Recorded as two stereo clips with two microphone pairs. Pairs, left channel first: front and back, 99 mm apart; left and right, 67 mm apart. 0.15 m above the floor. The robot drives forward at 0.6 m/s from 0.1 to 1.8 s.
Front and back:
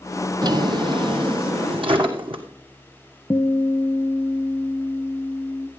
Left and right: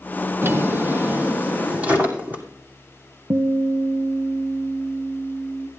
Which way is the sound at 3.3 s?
45° right.